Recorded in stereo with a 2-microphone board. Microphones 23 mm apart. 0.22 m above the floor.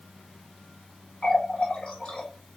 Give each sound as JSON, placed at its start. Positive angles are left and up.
{"t": 1.2, "sound": "a running tap", "side_deg": 60, "distance_m": 1.7}